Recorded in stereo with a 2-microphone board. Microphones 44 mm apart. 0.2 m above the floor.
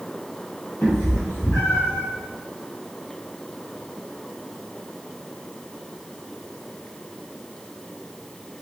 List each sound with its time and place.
0.8 s a cat meowing: 75° left (ahead or behind), 1.6 m; by 2.0 s 70° left (ahead or behind), 2.5 m